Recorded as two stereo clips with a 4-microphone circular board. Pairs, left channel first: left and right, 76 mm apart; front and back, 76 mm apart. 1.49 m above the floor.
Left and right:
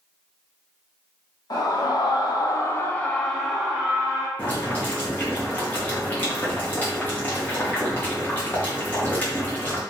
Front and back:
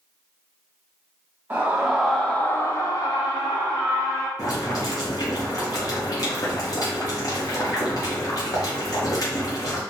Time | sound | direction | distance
1.5 | a scream | 110° left | 0.8 m
4.4 | boiling | 25° left | 0.9 m